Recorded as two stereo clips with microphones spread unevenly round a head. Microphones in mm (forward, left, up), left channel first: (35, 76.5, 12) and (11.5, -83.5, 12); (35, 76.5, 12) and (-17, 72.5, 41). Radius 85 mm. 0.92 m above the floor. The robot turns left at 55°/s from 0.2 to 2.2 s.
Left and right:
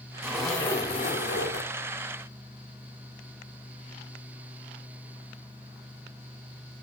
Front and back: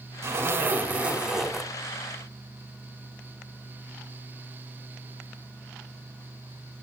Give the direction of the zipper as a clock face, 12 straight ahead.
6 o'clock.